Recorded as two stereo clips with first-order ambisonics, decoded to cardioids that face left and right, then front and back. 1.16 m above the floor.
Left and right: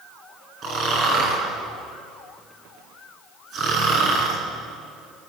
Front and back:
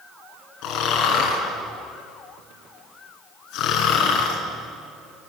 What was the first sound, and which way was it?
Snoring, 35° right.